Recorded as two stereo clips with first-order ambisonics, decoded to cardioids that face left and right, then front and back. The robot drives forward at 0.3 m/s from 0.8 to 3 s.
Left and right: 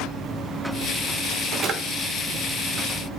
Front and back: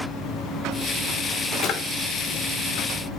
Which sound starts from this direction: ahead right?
A drawer, at 1.6 s.